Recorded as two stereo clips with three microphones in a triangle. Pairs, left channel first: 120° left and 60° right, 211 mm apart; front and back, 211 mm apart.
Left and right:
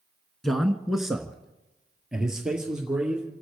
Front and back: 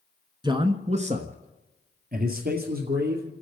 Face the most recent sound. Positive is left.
turn(degrees=-145)